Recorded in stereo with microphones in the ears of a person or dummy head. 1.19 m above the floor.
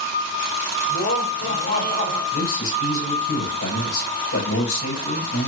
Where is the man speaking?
80° left, 6 m.